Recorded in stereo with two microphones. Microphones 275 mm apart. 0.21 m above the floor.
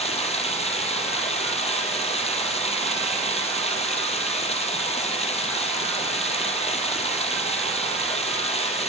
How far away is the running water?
About 4 m.